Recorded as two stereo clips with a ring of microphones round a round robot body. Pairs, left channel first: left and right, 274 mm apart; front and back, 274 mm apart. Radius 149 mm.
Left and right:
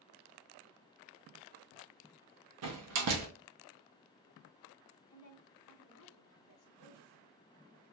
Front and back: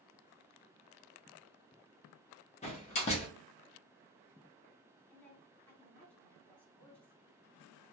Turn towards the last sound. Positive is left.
turn(degrees=85)